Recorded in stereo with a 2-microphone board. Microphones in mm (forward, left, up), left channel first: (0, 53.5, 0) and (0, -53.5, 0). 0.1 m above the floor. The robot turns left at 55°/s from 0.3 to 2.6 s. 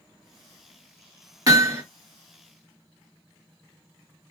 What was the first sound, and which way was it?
Hammering, 35° right (ahead or behind).